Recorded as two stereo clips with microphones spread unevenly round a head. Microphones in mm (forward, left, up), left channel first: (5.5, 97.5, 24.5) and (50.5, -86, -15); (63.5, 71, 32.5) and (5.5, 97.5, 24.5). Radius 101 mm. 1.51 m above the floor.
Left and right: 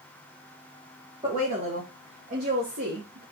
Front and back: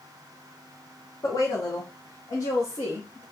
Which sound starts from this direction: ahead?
A woman speaking, at 1.2 s.